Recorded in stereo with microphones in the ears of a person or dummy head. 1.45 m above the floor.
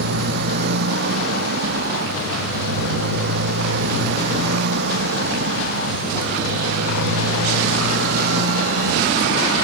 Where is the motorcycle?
60° right (ahead or behind); by 9.6 s 65° right (ahead or behind).